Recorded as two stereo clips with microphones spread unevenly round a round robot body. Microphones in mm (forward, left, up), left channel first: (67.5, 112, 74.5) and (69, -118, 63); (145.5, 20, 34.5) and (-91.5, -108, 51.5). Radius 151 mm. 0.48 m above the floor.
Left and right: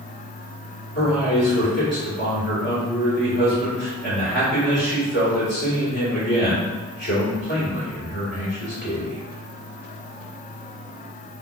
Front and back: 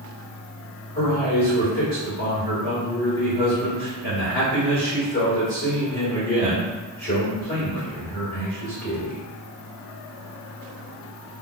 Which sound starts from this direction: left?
A man speaking, at 0.9 s.